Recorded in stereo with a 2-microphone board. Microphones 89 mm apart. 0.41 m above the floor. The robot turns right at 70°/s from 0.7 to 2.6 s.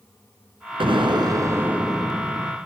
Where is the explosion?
85° right, 2 m; by 2.6 s 40° left, 2 m.